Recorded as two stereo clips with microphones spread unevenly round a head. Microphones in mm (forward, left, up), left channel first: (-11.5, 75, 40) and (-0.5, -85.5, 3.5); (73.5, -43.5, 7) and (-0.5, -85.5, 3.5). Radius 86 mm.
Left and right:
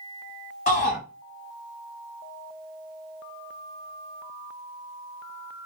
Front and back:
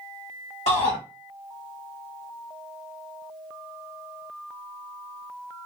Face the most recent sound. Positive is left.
turn(degrees=50)